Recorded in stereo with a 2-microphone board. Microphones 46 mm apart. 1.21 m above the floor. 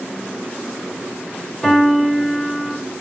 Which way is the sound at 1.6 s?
5° left (ahead or behind).